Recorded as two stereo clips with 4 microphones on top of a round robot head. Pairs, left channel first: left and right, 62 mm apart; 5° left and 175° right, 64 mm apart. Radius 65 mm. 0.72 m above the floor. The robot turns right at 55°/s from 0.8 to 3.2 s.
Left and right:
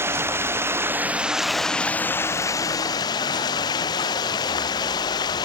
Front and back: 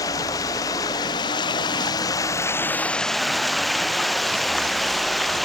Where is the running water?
40° right; by 5.5 s 90° left.